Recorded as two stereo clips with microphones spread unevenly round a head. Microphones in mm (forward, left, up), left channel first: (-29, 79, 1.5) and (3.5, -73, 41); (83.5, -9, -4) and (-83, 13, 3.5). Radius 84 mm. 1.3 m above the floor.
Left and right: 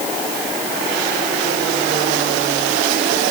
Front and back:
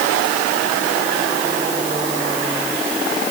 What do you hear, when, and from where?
Only background noise.